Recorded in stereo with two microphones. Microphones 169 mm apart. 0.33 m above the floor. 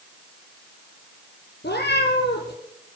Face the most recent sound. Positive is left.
turn(degrees=80)